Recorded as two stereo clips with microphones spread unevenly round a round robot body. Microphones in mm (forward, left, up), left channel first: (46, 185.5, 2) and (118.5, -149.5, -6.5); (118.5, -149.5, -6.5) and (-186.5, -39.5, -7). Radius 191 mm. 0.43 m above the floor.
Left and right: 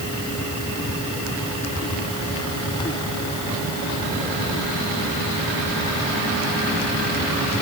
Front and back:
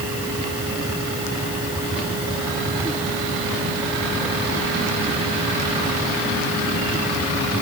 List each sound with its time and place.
Only background noise.